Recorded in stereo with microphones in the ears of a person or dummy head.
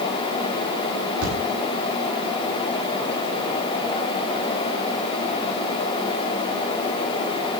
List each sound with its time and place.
1.2 s a thud: 75° right (ahead or behind), 6 m